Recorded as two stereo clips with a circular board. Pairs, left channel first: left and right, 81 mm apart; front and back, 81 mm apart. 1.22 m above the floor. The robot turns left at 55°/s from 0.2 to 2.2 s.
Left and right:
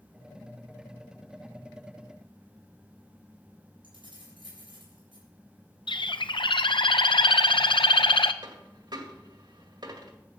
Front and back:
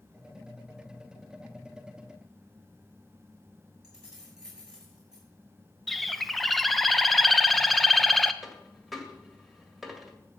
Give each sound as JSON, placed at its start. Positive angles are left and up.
{"t": 3.8, "sound": "keys jangling", "azimuth_deg": -95, "distance_m": 7.0}
{"t": 5.9, "sound": "a bird", "azimuth_deg": 90, "distance_m": 0.6}
{"t": 8.4, "sound": "a dropped coin", "azimuth_deg": -90, "distance_m": 1.8}